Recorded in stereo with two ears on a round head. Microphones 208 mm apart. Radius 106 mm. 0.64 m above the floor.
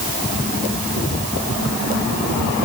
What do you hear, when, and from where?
Only background noise.